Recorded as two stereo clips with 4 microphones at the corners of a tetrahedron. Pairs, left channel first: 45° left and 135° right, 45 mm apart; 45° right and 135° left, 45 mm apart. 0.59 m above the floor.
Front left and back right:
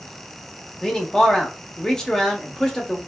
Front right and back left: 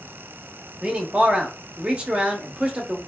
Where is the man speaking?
100° left, 0.7 m.